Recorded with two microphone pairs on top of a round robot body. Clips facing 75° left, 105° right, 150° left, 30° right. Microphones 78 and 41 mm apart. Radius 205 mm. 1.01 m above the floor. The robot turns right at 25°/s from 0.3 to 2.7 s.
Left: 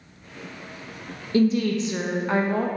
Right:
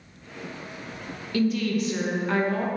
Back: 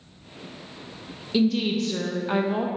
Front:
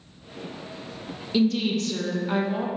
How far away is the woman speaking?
About 0.7 m.